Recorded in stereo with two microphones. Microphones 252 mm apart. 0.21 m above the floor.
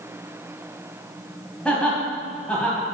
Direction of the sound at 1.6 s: 5° left (ahead or behind).